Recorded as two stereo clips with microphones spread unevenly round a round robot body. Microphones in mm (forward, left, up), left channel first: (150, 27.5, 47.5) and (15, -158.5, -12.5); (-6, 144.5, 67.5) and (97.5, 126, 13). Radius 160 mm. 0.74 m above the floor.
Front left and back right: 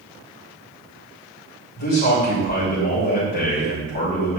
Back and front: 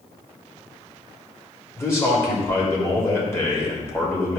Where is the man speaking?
95° left, 3.5 m.